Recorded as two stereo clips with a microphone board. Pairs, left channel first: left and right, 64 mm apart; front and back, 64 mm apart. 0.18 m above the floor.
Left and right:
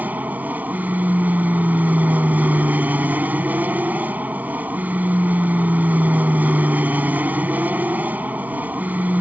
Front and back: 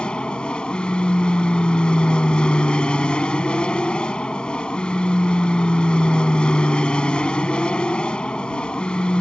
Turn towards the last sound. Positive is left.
turn(degrees=-60)